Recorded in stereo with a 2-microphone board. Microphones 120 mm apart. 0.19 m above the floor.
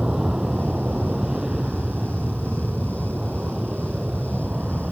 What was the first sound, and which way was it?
An aircraft, 5° right (ahead or behind).